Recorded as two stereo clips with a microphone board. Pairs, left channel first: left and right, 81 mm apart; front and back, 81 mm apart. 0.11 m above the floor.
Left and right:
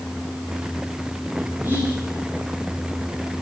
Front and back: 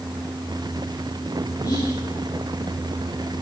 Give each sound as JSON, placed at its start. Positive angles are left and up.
{"t": 1.6, "sound": "whispering", "azimuth_deg": -30, "distance_m": 10.0}